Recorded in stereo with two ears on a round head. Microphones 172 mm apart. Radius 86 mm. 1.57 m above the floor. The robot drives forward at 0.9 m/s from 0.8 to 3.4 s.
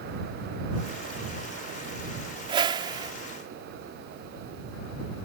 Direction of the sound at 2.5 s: 25° right (ahead or behind).